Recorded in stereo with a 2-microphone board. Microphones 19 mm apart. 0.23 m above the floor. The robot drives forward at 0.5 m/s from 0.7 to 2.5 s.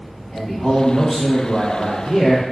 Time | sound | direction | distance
0.3 | a man speaking | 20° left (ahead or behind) | 1.7 m